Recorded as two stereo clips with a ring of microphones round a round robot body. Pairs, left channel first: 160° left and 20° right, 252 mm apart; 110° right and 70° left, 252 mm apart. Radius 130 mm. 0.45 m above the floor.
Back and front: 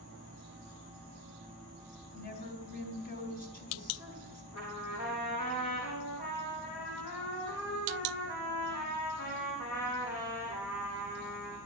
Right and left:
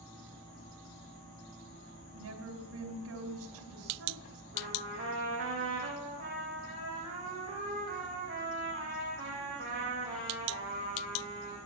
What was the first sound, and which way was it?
A woman speaking, 100° left.